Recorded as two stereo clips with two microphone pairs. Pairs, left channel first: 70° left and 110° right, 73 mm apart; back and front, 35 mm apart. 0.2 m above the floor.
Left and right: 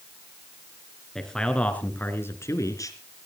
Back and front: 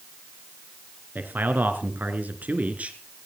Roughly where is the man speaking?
Ahead.